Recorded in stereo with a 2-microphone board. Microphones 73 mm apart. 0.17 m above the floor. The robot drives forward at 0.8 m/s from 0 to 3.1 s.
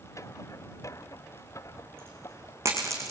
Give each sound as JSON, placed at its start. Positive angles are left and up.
{"t": 1.6, "sound": "a dropped coin", "side_deg": -30, "distance_m": 4.5}